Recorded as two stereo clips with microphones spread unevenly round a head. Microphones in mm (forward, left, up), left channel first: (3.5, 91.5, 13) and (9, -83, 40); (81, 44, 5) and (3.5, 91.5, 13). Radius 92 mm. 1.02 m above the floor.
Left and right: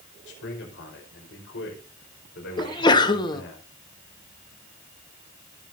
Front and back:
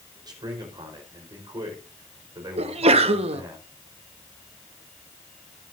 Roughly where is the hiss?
I don't hear a hiss.